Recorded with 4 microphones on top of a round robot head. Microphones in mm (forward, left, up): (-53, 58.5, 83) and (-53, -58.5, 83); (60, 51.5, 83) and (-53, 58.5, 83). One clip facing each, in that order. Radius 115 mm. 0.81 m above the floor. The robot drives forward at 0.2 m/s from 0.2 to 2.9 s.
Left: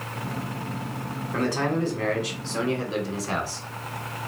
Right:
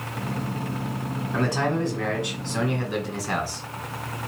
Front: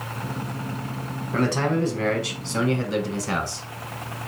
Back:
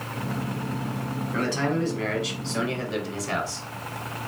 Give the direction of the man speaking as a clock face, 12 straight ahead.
12 o'clock.